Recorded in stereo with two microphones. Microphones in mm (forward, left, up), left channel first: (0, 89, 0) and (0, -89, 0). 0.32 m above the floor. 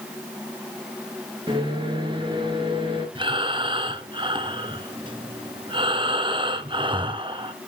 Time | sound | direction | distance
1.5 | a microwave | 30° right (ahead or behind) | 3.5 m
3.1 | breathing | 30° right (ahead or behind) | 1.1 m